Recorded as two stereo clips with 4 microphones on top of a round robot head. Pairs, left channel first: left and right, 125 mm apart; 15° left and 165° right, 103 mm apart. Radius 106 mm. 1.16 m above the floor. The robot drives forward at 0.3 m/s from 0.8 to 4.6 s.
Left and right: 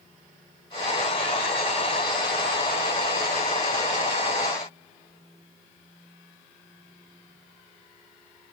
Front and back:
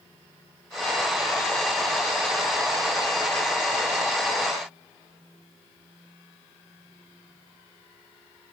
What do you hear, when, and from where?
Only background noise.